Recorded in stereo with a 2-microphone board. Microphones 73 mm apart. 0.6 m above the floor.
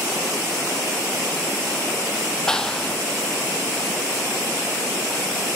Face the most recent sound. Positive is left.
turn(degrees=10)  # may be behind; listen again after turning